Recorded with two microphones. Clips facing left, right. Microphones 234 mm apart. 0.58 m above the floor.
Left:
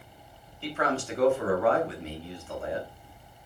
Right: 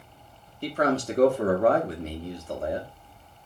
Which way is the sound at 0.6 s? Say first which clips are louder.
Right 5 dB; 40° right (ahead or behind).